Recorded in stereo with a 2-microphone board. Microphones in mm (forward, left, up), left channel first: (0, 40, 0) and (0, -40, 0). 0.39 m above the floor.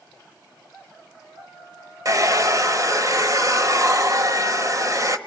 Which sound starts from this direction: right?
A hair dryer, at 2.0 s.